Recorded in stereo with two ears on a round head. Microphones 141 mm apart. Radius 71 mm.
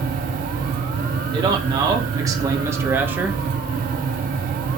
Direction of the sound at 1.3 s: 25° right (ahead or behind).